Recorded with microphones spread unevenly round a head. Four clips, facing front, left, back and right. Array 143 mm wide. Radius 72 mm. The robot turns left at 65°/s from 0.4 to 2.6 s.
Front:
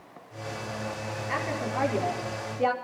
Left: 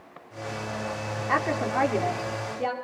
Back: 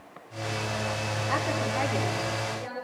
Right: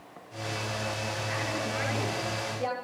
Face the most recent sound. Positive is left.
turn(degrees=25)